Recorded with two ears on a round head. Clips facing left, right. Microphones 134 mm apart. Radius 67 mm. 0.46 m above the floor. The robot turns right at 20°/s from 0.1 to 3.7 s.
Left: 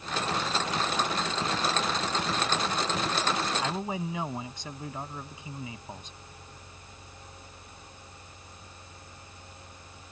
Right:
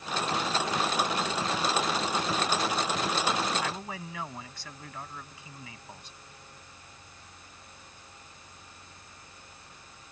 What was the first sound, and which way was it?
A man speaking, 15° left (ahead or behind).